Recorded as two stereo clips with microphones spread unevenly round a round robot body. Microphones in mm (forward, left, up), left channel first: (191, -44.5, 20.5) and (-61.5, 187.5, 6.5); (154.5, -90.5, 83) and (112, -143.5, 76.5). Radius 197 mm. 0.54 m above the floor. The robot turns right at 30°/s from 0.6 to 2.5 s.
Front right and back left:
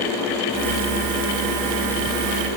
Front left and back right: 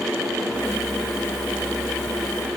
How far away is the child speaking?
I don't hear a child speaking.